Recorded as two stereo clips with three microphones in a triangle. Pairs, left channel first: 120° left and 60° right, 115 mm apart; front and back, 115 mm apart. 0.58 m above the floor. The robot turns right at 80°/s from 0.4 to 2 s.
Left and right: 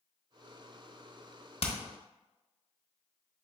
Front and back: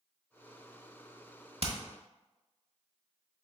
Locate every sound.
1.6 s hammering: 150° left, 0.8 m; by 1.8 s 160° left, 0.8 m